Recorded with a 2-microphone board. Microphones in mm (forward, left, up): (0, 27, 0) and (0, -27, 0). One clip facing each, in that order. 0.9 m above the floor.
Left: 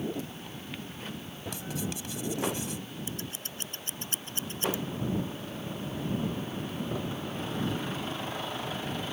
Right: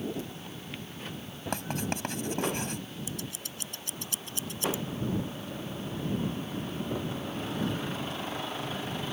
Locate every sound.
1.5 s writing: 50° right (ahead or behind)
3.1 s scissors: 35° left (ahead or behind)